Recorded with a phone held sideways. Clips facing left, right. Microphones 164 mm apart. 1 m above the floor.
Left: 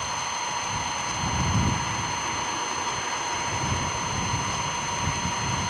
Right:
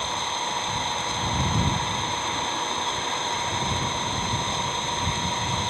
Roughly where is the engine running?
Right.